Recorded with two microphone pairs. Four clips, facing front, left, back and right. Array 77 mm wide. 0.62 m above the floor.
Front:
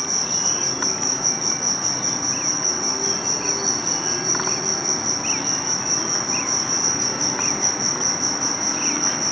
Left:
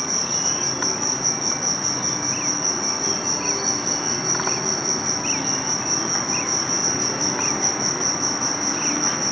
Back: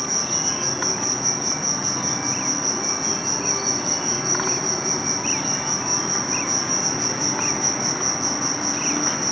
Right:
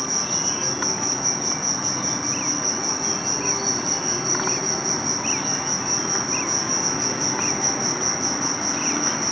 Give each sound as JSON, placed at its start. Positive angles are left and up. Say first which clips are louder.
{"t": 0.0, "sound": "an insect", "louder": "even, back 1 dB", "azimuth_deg": 85, "distance_m": 1.4}